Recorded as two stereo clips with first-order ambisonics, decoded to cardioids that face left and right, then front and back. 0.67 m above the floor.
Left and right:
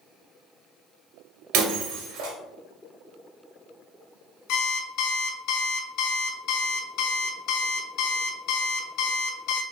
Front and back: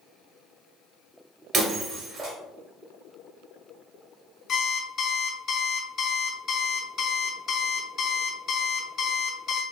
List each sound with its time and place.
1.5 s breaking glass: 120° right, 1.8 m
4.5 s an alarm clock: 60° left, 0.6 m